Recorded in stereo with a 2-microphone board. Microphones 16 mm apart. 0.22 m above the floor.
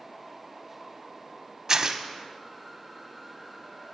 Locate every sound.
1.7 s tearing paper: 35° right (ahead or behind), 0.6 m